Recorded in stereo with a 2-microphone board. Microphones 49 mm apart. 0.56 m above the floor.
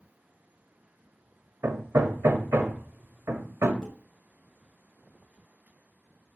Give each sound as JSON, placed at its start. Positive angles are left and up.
{"t": 1.6, "sound": "hammering", "side_deg": -60, "distance_m": 1.6}
{"t": 3.8, "sound": "dishes clattering", "side_deg": 5, "distance_m": 5.0}